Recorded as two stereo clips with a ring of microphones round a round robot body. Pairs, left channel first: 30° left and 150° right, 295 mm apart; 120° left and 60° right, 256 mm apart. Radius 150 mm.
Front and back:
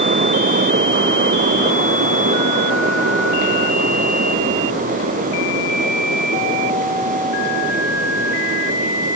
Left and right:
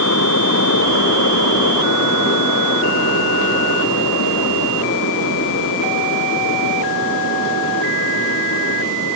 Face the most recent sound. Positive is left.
No sound to turn to.